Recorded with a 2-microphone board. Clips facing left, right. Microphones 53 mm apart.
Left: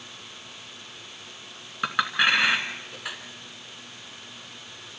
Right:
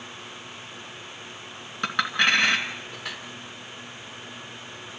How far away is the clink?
About 2.5 m.